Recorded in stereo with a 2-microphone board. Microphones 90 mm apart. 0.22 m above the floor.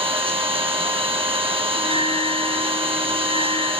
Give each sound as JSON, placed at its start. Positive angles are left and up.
{"t": 0.0, "sound": "an engine running", "side_deg": -80, "distance_m": 6.0}
{"t": 1.8, "sound": "a bell", "side_deg": 80, "distance_m": 9.5}